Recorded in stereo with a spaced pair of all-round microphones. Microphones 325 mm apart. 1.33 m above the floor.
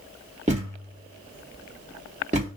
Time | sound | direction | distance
0.5 | a thud | 20° right (ahead or behind) | 1.3 m